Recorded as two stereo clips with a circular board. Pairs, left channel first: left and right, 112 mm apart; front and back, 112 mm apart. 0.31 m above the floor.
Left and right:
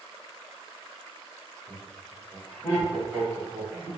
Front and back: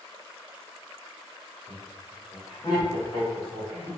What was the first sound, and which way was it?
Laughter, 80° left.